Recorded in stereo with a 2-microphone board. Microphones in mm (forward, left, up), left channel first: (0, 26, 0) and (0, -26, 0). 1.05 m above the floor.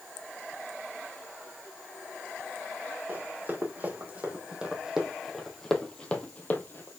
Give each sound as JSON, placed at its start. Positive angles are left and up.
{"t": 3.1, "sound": "running footsteps", "side_deg": -40, "distance_m": 3.0}